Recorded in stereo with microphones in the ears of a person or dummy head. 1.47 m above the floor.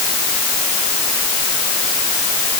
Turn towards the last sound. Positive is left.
No sound to turn to.